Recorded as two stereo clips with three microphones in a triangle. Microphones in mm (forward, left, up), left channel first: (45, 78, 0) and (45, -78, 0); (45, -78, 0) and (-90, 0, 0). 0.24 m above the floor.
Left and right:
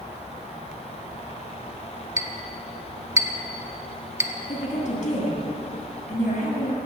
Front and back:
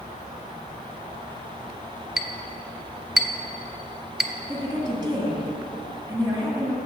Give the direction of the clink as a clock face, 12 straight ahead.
4 o'clock.